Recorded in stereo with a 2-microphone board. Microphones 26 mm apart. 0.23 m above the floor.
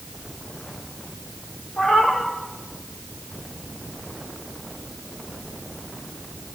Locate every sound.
1.8 s a cat meowing: 45° left (ahead or behind), 4.5 m